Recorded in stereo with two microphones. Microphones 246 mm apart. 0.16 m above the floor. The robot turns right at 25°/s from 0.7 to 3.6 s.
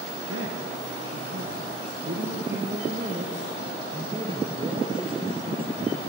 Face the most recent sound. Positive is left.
turn(degrees=-25)